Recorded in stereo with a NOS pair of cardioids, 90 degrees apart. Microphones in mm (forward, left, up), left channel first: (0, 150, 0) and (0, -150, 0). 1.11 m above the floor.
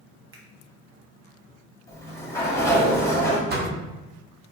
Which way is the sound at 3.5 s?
35° right.